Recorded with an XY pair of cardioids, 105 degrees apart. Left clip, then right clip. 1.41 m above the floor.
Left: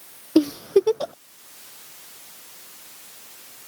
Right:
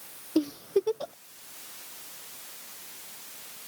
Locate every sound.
0.3 s a giggle: 50° left